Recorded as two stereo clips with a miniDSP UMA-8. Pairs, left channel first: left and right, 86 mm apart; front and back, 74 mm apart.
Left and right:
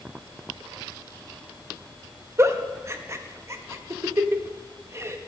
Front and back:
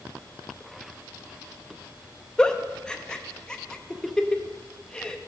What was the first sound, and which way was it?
A giggle, 70° right.